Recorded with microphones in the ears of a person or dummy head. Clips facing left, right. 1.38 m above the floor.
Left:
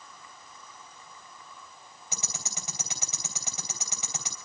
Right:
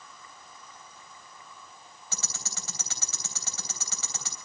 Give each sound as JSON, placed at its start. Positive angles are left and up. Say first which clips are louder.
{"t": 2.1, "sound": "ticking", "louder": "left 1 dB", "side_deg": 10, "distance_m": 3.5}